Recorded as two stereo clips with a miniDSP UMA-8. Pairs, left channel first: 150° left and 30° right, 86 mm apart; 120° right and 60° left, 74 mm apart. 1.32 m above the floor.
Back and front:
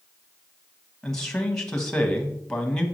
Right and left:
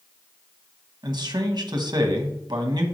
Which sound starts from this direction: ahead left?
A man speaking, at 1.0 s.